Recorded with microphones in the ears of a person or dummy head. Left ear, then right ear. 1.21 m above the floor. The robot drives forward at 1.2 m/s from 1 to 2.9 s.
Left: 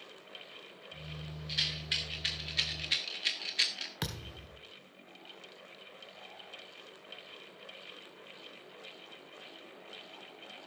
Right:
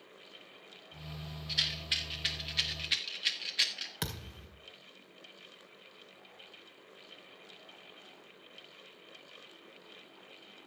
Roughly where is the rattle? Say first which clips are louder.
Right 1 dB; centre.